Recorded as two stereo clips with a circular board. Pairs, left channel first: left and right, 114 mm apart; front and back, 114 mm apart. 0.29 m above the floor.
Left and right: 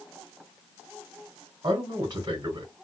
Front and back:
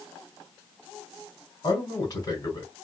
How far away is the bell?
I don't hear a bell.